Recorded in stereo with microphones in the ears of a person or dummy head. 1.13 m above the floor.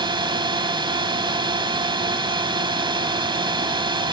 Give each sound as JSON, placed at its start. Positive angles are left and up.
{"t": 0.0, "sound": "a drone", "side_deg": -25}